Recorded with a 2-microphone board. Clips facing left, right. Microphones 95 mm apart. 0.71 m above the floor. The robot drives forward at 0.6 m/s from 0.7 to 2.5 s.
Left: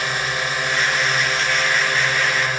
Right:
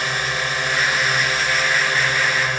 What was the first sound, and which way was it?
A drone, centre (ahead or behind).